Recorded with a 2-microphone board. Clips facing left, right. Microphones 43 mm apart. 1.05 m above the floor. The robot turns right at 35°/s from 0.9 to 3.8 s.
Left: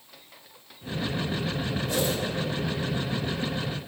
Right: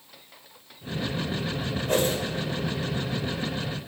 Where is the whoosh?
45° right (ahead or behind), 1.1 m; by 2.2 s 50° right (ahead or behind), 1.1 m.